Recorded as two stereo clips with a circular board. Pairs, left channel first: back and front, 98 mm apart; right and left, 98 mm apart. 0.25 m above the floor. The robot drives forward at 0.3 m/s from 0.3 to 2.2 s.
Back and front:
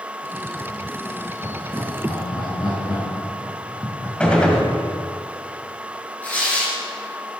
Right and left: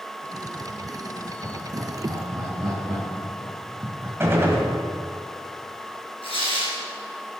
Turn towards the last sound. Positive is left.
turn(degrees=-105)